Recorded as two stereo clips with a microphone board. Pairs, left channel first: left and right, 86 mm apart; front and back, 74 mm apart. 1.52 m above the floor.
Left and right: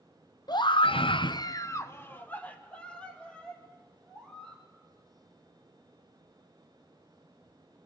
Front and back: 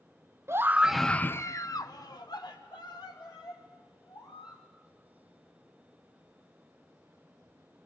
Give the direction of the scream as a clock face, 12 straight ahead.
8 o'clock.